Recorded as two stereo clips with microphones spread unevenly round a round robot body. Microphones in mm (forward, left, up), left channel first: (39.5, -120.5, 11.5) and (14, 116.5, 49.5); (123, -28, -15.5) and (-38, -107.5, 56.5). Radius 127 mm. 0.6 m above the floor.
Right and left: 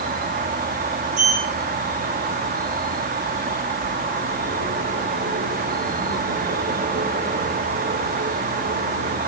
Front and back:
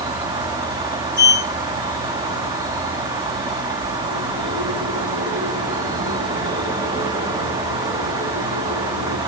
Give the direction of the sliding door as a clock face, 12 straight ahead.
7 o'clock.